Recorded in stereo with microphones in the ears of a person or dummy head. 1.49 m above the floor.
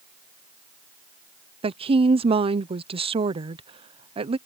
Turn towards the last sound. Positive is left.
turn(degrees=-30)  # may be behind; listen again after turning